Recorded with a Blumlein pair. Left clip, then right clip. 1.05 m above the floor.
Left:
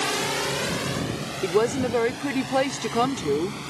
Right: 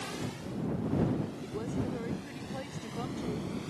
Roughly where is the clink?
I don't hear a clink.